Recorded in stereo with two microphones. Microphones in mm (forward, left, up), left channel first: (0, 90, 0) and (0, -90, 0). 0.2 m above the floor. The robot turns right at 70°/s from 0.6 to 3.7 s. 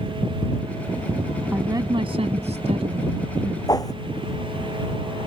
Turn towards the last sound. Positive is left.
turn(degrees=20)  # may be behind; listen again after turning